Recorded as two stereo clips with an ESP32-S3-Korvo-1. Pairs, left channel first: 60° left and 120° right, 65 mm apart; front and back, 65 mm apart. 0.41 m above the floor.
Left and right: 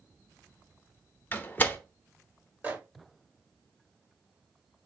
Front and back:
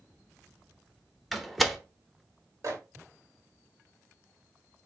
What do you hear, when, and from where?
1.3 s a door slam: 90° left, 0.6 m
2.6 s a microwave: 175° right, 1.4 m